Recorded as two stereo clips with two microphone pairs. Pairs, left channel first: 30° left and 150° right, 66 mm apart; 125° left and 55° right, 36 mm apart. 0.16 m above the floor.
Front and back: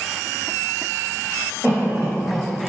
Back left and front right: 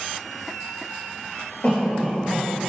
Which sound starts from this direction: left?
A cough, at 1.6 s.